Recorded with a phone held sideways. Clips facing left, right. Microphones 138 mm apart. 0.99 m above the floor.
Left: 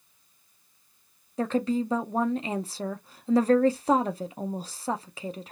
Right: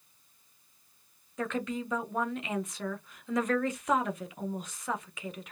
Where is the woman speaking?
35° left (ahead or behind), 0.6 m.